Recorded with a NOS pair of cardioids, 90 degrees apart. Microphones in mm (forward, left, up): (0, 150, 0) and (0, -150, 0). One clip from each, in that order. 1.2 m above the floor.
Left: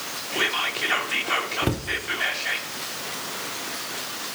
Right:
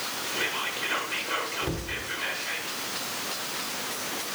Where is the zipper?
I don't hear a zipper.